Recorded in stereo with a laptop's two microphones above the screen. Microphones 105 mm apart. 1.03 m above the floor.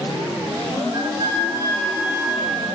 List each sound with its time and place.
0.9 s a flute: 65° left (ahead or behind), 0.8 m